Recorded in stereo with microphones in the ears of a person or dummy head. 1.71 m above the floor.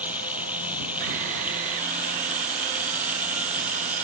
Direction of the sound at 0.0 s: 10° right (ahead or behind).